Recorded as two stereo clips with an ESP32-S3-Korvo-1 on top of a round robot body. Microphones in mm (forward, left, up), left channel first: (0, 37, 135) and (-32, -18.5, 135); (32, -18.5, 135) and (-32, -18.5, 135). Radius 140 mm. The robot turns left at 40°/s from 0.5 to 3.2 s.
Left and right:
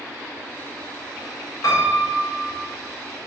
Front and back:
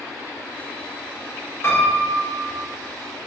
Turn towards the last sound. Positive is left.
turn(degrees=-20)